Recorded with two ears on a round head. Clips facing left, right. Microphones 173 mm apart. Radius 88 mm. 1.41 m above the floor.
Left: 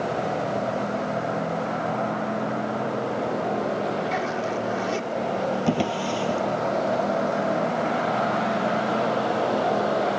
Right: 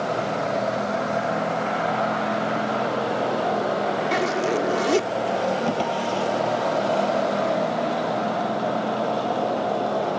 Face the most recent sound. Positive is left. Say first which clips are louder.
# even
turn(degrees=20)  # may be behind; listen again after turning